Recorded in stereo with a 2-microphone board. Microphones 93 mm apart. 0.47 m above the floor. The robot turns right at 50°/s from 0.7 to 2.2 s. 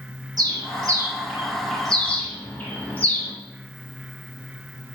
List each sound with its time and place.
0.4 s a bird: 45° right (ahead or behind), 0.7 m; by 3.3 s 15° left (ahead or behind), 0.7 m